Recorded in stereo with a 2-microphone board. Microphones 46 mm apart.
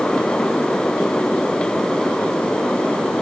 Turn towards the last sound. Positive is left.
No sound to turn to.